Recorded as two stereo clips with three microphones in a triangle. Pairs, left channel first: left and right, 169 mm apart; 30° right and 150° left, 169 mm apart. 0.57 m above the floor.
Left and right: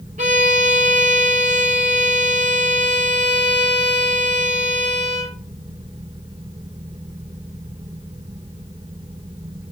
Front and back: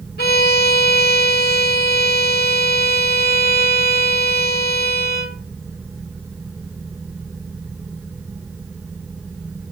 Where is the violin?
45° right, 1.4 m.